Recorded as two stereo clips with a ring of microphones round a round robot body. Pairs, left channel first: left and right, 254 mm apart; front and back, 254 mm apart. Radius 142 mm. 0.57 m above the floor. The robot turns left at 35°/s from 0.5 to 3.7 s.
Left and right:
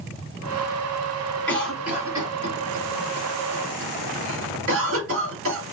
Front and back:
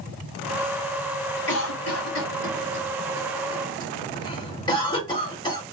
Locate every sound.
1.5 s a cough: 10° left, 1.8 m; by 5.6 s 70° right, 1.8 m